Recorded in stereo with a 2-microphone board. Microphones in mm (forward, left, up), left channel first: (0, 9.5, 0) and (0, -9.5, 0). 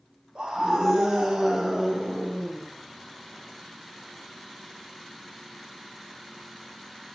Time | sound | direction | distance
0.3 | a scream | 75° right (ahead or behind) | 5 m